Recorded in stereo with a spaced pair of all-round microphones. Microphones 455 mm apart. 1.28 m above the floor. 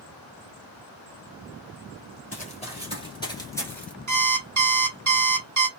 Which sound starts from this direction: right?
An alarm clock, at 4.1 s.